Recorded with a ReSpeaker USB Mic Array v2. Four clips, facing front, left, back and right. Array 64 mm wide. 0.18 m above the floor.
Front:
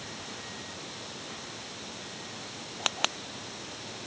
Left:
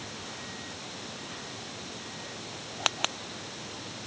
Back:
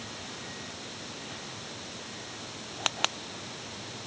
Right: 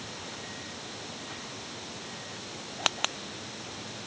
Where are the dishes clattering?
No dishes clattering in this recording.